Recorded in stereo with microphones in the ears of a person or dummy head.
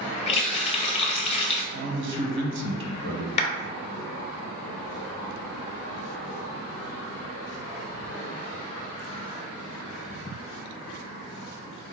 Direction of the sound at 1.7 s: 65° right (ahead or behind).